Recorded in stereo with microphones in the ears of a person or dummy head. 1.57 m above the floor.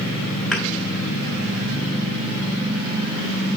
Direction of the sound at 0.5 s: 5° left (ahead or behind).